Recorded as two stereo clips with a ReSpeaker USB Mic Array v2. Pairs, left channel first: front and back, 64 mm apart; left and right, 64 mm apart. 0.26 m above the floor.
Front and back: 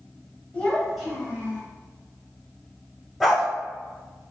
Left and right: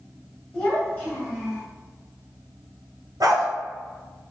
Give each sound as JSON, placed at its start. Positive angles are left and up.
{"t": 0.5, "sound": "a child speaking", "azimuth_deg": 35, "distance_m": 1.1}
{"t": 3.2, "sound": "a dog barking", "azimuth_deg": -85, "distance_m": 1.4}